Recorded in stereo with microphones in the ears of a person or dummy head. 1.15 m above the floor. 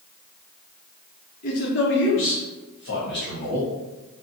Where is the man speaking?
40° left (ahead or behind), 0.6 m; by 3.7 s 50° left (ahead or behind), 1.5 m.